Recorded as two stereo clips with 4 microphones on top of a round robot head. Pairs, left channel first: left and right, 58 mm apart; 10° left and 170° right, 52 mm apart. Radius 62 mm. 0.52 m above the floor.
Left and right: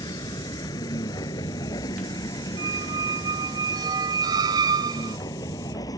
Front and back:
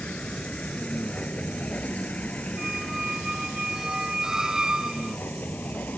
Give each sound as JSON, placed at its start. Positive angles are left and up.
{"t": 0.0, "sound": "a vehicle", "azimuth_deg": 80}
{"t": 2.6, "sound": "a squeak", "azimuth_deg": -90}